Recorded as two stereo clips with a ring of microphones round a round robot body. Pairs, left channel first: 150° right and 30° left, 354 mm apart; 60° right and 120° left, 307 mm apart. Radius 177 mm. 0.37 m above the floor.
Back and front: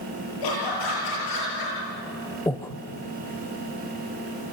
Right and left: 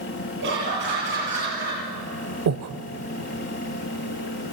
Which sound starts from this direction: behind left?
Breathing, at 2.5 s.